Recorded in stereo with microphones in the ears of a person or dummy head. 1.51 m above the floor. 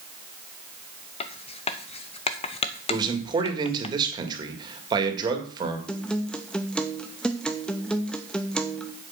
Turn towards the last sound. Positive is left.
turn(degrees=0)  # may be behind; listen again after turning